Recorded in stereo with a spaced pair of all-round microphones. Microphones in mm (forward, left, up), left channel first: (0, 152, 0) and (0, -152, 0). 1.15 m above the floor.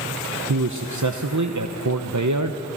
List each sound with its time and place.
0.5 s a man speaking: 65° right (ahead or behind), 0.8 m